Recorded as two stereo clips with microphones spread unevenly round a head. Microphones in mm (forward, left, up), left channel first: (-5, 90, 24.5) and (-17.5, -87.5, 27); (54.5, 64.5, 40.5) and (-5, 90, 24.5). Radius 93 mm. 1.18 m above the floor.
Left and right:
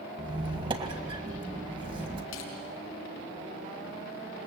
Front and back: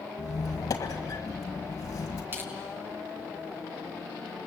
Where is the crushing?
95° left, 5 m.